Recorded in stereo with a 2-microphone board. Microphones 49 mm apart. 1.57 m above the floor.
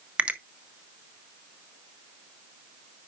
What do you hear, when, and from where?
0.2 s a finger snap: 25° right (ahead or behind), 0.7 m